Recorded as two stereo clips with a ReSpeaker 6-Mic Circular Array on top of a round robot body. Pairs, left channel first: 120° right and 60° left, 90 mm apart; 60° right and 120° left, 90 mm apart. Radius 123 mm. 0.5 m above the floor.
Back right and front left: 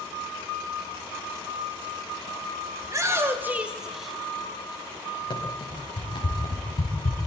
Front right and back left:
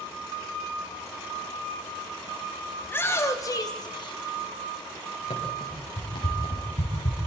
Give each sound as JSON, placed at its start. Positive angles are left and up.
{"t": 2.8, "sound": "a shout", "azimuth_deg": 10, "distance_m": 3.0}
{"t": 5.3, "sound": "running footsteps", "azimuth_deg": -90, "distance_m": 7.0}